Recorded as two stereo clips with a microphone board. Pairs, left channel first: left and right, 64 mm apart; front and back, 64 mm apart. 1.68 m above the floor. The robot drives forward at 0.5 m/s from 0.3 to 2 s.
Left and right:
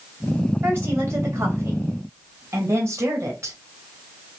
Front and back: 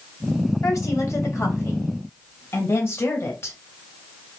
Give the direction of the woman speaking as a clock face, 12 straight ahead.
1 o'clock.